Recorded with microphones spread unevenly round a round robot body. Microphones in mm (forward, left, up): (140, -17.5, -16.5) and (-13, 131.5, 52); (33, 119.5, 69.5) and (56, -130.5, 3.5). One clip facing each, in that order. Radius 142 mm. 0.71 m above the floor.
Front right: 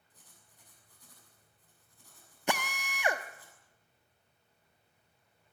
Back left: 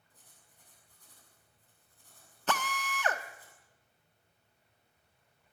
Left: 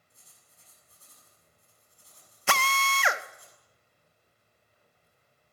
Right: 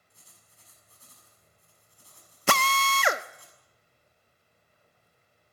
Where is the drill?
110° right, 0.7 m.